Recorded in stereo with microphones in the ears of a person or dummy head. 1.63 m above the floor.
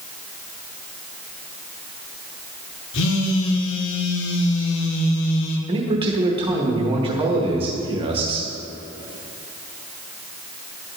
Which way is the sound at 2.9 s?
80° left.